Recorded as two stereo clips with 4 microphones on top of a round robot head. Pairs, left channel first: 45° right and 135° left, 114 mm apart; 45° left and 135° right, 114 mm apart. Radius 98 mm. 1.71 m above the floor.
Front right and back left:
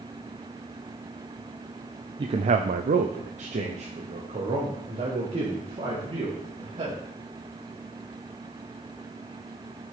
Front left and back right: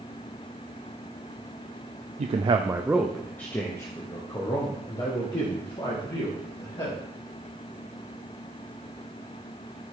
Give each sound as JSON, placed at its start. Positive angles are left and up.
{"t": 2.2, "sound": "a man speaking", "azimuth_deg": -170, "distance_m": 0.6}